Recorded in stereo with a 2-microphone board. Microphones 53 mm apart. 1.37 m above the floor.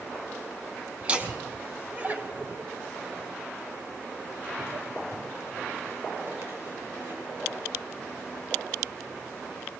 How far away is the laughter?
About 4 m.